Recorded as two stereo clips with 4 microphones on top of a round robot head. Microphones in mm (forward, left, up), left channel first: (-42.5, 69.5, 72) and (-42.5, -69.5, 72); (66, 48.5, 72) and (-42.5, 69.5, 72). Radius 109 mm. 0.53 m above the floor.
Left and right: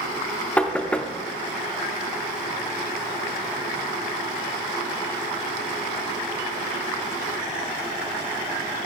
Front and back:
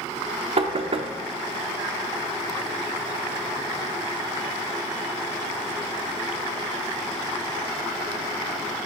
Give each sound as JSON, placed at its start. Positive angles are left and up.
{"t": 0.6, "sound": "knocking", "azimuth_deg": 170, "distance_m": 0.9}